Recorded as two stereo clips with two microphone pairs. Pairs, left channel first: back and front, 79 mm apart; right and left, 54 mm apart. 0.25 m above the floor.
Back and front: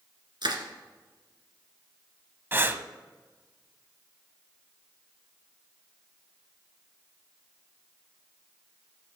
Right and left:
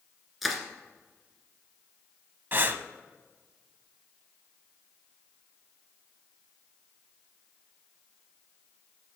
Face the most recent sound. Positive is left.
turn(degrees=55)